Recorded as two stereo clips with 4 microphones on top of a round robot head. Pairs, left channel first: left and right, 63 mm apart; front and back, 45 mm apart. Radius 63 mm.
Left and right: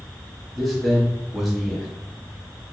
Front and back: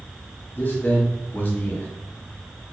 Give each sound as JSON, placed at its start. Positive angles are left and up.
{"t": 0.6, "sound": "a man speaking", "azimuth_deg": -10, "distance_m": 0.9}